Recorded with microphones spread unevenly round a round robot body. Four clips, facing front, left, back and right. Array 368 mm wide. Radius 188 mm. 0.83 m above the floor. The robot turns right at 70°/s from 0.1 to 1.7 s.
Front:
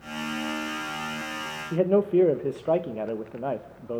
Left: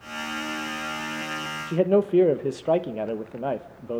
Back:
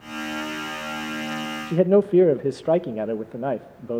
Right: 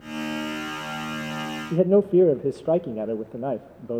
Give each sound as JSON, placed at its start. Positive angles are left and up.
{"t": 1.7, "sound": "a man speaking", "azimuth_deg": -150, "distance_m": 1.0}